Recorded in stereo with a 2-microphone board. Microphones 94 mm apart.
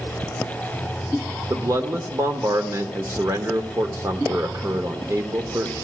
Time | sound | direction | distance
1.5 | a man speaking | 35° right (ahead or behind) | 1.1 m